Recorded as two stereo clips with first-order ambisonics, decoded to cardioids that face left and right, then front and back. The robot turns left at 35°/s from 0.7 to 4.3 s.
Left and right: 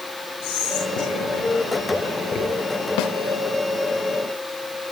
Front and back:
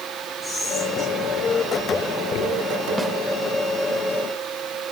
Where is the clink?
No clink in this recording.